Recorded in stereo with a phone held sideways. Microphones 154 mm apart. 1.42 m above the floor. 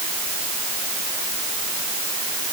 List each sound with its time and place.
Only background noise.